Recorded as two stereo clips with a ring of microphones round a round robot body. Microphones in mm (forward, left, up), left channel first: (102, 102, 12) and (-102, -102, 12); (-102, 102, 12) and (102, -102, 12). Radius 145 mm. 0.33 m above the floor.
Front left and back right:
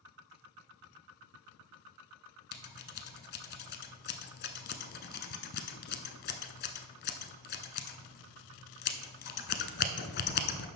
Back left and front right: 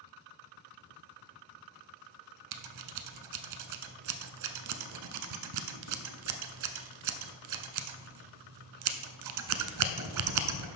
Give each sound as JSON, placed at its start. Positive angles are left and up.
{"t": 2.5, "sound": "scissors", "azimuth_deg": -15, "distance_m": 0.8}